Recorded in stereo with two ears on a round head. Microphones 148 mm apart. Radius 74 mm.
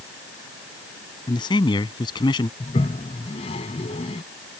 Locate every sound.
1.3 s a man speaking: 25° left (ahead or behind)
2.6 s a toilet flushing: 35° left (ahead or behind)